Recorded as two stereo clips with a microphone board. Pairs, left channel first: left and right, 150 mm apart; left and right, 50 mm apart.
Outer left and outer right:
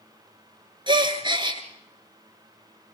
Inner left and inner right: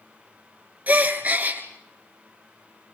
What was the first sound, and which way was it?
A gasp, 35° right (ahead or behind).